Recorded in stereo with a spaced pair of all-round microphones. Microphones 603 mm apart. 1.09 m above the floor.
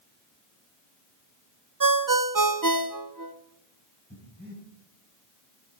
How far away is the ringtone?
About 0.6 m.